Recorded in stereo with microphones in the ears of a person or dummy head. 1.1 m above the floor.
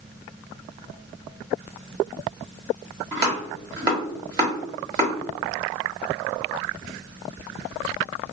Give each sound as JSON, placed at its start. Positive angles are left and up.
{"t": 3.1, "sound": "chopping", "side_deg": -25, "distance_m": 1.0}